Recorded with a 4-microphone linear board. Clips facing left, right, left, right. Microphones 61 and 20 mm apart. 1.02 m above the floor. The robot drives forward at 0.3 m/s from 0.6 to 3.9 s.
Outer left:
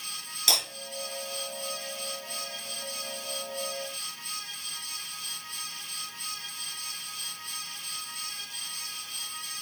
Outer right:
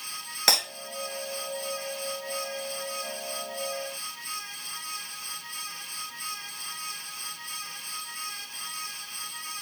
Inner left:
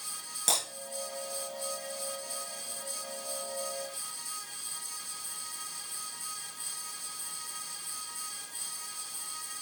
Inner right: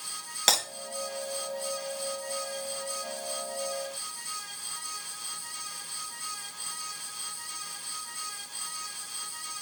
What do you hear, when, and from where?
0.5 s breaking glass: 50° right (ahead or behind), 6.5 m